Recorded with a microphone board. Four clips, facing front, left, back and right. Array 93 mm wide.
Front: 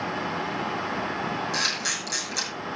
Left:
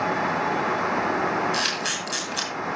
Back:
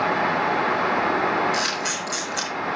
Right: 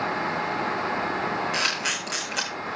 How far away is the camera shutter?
About 7.5 m.